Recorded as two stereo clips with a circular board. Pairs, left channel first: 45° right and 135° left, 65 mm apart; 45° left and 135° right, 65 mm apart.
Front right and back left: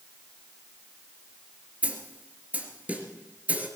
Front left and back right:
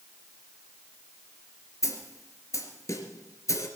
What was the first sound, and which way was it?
A snare drum, 70° left.